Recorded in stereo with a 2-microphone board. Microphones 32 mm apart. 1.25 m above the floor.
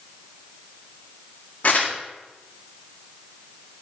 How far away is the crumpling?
About 1.8 m.